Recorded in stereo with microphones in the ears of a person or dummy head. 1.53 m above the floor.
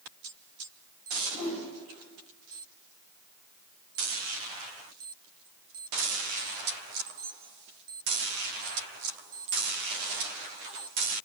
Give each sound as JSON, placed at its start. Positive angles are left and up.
{"t": 1.3, "sound": "a whoosh", "side_deg": 45, "distance_m": 1.9}